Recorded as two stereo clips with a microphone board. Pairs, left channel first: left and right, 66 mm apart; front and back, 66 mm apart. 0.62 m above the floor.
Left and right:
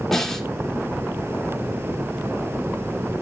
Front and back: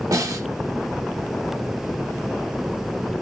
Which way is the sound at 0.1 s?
175° left.